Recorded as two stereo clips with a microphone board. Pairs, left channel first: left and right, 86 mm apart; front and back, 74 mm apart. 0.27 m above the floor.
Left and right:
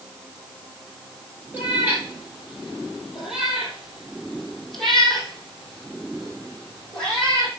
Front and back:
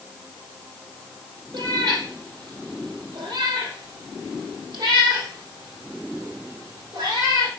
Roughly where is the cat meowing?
Behind.